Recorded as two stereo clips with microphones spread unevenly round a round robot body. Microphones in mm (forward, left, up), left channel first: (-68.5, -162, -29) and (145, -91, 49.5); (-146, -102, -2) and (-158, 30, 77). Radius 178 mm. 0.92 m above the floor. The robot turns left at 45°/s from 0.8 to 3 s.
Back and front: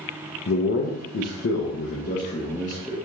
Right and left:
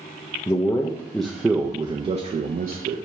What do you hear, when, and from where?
0.5 s a man speaking: 135° right, 0.6 m; by 3.0 s 125° left, 0.6 m